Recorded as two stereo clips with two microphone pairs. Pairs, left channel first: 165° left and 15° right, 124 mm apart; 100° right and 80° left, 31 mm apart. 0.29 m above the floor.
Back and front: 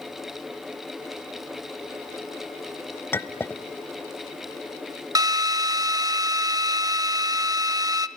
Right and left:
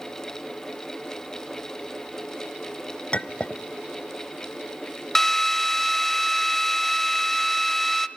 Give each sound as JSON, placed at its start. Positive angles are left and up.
{"t": 3.1, "sound": "a clink", "azimuth_deg": -135, "distance_m": 0.8}
{"t": 5.2, "sound": "a drill", "azimuth_deg": -35, "distance_m": 1.2}